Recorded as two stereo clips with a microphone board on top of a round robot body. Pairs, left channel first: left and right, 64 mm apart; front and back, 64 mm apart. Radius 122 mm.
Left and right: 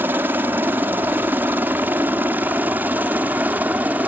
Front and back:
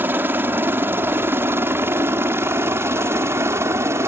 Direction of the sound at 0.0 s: 135° right.